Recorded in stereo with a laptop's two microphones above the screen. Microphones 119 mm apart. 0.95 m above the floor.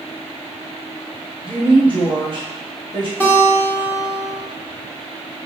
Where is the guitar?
15° left (ahead or behind), 0.9 m.